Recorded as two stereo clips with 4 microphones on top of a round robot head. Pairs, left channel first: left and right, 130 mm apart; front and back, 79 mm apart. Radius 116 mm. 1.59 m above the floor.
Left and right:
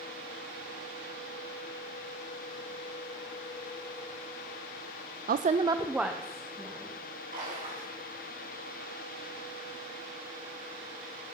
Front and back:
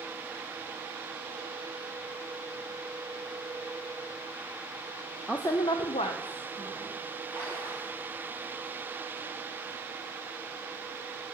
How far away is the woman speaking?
About 0.5 m.